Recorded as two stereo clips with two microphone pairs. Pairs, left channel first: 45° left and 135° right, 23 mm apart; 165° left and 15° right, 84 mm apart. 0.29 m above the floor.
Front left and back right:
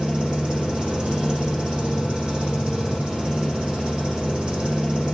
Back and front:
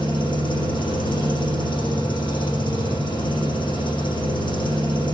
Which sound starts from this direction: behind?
An engine running, at 0.0 s.